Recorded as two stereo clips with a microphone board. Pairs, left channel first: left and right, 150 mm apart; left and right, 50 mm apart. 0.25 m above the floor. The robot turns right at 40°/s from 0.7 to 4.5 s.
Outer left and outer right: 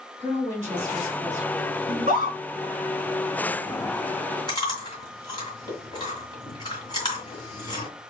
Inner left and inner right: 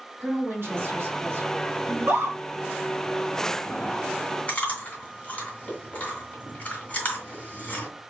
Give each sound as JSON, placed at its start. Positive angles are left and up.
{"t": 0.2, "sound": "a woman speaking", "azimuth_deg": -115, "distance_m": 2.5}
{"t": 1.9, "sound": "a scream", "side_deg": -65, "distance_m": 2.0}
{"t": 4.5, "sound": "chewing", "side_deg": 30, "distance_m": 2.5}